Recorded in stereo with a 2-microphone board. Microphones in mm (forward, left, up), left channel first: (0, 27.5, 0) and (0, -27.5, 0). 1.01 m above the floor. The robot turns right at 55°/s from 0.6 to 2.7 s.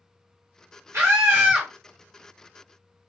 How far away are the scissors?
No scissors in this recording.